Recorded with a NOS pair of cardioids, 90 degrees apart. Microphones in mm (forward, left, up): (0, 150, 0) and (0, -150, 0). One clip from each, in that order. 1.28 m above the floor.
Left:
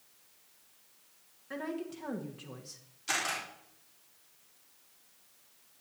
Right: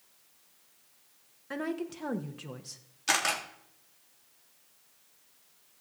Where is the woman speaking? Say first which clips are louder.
Right 3 dB; 35° right, 1.4 m.